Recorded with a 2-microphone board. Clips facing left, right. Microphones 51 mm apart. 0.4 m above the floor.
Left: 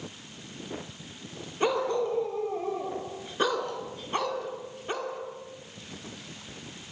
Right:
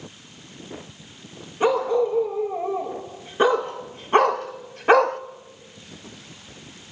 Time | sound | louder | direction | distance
1.6 | a dog barking | right 7 dB | 10° right (ahead or behind) | 4.5 m